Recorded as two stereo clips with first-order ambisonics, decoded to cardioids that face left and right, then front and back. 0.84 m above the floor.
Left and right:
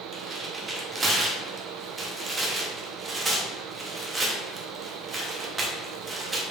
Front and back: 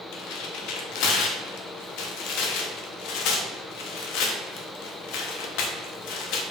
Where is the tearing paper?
20° right, 0.6 m.